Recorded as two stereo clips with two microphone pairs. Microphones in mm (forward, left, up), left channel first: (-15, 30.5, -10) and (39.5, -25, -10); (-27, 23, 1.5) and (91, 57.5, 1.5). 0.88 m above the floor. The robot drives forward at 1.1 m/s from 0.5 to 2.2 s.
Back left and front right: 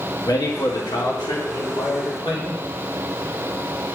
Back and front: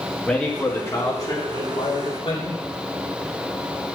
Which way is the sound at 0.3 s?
115° left.